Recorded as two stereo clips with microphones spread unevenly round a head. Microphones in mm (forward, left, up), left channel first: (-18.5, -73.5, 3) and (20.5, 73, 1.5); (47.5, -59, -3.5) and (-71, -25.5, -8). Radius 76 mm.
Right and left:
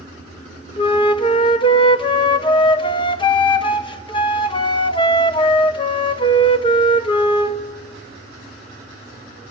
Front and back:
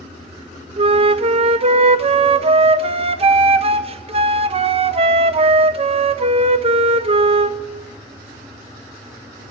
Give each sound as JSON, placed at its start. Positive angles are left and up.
{"t": 0.8, "sound": "a flute", "azimuth_deg": -165, "distance_m": 1.1}